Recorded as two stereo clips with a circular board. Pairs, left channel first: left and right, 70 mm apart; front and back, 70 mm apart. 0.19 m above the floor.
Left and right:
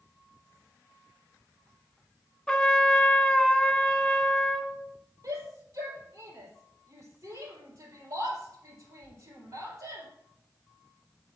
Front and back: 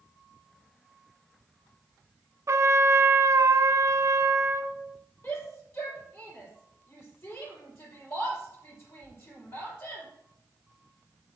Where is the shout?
50° right, 4 m.